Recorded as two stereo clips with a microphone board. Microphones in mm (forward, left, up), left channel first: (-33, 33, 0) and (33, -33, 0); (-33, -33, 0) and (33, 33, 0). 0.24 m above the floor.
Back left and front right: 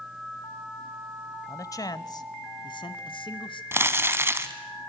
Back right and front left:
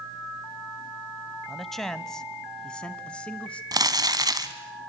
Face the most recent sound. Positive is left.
turn(degrees=15)